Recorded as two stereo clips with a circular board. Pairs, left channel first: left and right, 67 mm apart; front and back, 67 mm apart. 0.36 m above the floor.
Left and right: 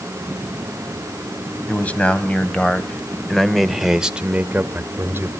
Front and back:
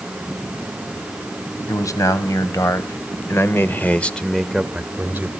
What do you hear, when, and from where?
1.7 s a man speaking: 20° left, 2 m; by 5.3 s 130° right, 1.1 m